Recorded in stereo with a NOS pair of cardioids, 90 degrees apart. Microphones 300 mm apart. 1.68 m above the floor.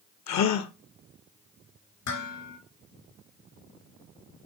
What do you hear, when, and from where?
0.3 s a gasp: 65° left, 0.9 m
2.1 s dishes clattering: 70° left, 3.5 m